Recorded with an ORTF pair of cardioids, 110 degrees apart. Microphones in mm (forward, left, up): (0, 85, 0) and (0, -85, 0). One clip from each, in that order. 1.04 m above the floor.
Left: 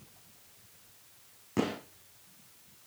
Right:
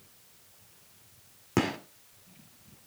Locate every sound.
1.6 s a gunshot: 55° right, 2.5 m